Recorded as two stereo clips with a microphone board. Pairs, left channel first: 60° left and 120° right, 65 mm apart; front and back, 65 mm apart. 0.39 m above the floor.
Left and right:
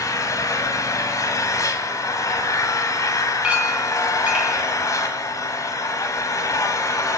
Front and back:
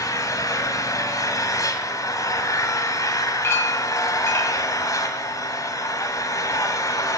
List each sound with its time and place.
0.0 s an engine running: 30° left, 1.8 m
3.4 s a clink: 50° right, 3 m